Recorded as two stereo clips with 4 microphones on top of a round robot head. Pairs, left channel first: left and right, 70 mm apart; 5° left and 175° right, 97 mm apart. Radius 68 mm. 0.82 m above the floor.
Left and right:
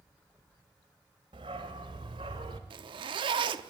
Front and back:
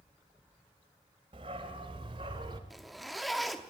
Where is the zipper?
85° right, 0.8 m.